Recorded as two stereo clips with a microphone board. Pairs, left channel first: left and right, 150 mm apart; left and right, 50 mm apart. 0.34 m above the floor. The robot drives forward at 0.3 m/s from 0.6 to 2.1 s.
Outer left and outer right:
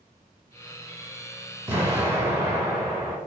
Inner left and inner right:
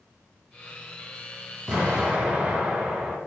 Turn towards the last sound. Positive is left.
turn(degrees=-15)  # may be behind; listen again after turning